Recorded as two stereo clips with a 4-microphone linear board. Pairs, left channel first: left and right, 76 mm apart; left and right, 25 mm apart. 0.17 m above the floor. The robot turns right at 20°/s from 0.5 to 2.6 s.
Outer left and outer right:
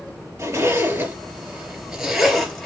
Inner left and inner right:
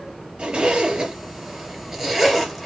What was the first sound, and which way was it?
A zipper, 35° right (ahead or behind).